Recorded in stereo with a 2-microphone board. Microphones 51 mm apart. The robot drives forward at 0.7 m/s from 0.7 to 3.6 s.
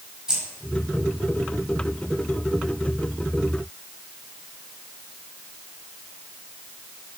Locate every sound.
0.3 s keys jangling: 15° right (ahead or behind), 6.5 m